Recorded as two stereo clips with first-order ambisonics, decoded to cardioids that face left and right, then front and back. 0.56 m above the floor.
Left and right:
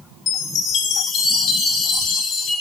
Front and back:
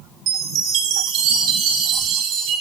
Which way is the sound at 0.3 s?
145° left.